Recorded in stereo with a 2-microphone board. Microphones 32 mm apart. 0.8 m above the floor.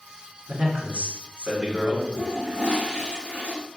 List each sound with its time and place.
0.5 s a man speaking: 45° right (ahead or behind), 1.6 m
2.1 s a toilet flushing: 40° right (ahead or behind), 2.0 m